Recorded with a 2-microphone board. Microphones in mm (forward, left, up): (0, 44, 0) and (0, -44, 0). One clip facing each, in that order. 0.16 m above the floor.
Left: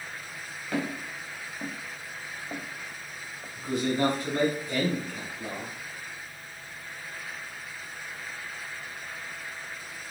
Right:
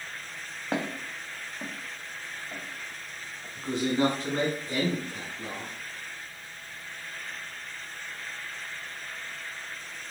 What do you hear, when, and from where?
0.7 s footsteps: 40° right (ahead or behind), 0.8 m; by 3.5 s 75° left (ahead or behind), 1.2 m
3.5 s a man speaking: 25° right (ahead or behind), 1.3 m